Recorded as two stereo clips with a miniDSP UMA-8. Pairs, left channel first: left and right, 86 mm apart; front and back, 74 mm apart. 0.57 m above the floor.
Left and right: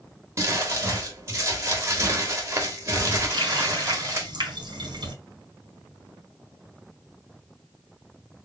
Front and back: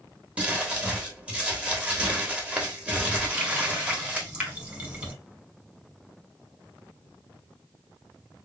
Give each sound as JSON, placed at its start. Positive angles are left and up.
{"t": 0.4, "sound": "crumpling", "azimuth_deg": -120, "distance_m": 1.3}
{"t": 3.3, "sound": "a running tap", "azimuth_deg": -115, "distance_m": 1.6}